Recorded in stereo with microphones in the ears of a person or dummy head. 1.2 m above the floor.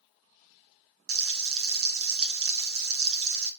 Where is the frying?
70° right (ahead or behind), 1.5 m.